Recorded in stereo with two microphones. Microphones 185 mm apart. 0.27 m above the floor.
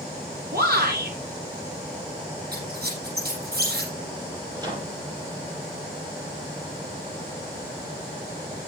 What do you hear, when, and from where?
0.5 s a shout: 60° right (ahead or behind), 7.5 m
2.5 s a squeak: 65° right (ahead or behind), 7.5 m
4.6 s a microwave: 25° right (ahead or behind), 5.5 m